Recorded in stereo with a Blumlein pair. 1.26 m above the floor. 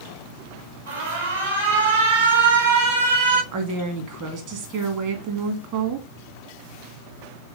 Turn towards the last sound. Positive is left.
turn(degrees=-40)